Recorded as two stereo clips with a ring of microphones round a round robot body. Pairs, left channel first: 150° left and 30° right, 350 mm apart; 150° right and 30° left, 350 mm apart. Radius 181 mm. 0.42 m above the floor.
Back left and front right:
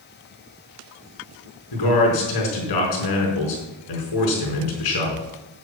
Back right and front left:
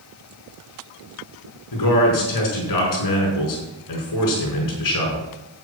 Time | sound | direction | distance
1.7 | a man speaking | 175° left | 5 m